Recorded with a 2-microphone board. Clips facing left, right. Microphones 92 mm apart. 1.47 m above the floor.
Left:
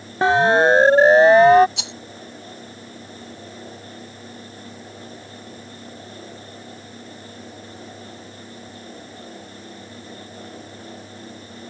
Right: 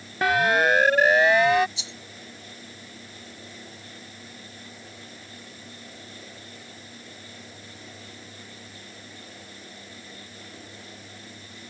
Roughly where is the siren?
Left.